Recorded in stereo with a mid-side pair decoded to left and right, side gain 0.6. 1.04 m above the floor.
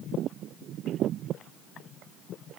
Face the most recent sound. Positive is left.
No sound to turn to.